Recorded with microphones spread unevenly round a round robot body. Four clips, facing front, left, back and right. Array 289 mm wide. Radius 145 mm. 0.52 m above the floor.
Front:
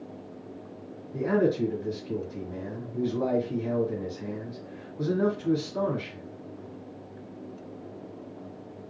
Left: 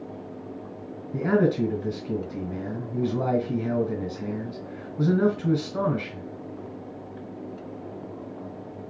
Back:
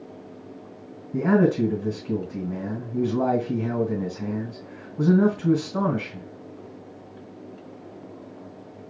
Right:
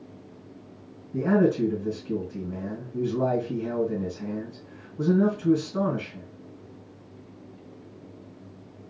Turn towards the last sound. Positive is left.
turn(degrees=150)